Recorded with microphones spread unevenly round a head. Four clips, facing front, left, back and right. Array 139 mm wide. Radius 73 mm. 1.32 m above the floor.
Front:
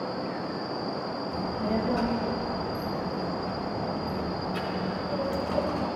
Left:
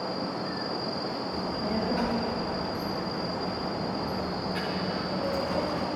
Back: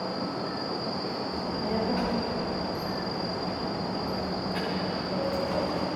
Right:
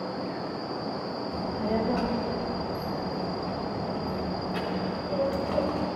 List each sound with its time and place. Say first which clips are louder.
1.3 s a child speaking: right 4 dB, front 3 dB; 100° right, 0.9 m